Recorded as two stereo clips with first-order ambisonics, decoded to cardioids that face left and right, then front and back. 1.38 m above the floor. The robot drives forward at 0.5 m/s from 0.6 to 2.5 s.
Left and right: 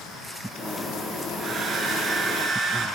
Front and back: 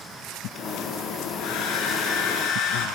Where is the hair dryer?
25° right, 8 m.